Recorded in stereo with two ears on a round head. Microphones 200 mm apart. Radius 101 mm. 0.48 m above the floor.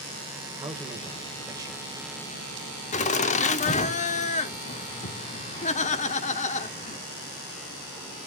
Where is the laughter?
30° left (ahead or behind), 1.0 m.